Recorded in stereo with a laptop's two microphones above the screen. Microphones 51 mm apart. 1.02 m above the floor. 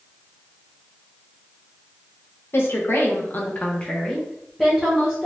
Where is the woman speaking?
50° left (ahead or behind), 0.8 m; by 5.3 s 10° right (ahead or behind), 1.3 m.